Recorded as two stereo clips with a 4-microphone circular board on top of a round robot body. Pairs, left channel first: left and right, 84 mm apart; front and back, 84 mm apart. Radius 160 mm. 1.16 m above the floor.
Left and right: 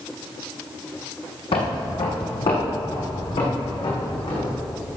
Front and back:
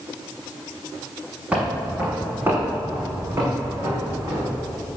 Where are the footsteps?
105° left, 3 m; by 4.5 s 125° left, 4.5 m.